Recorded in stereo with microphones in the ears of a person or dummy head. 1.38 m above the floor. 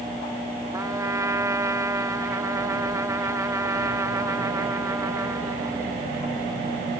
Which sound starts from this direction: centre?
A trumpet, at 0.7 s.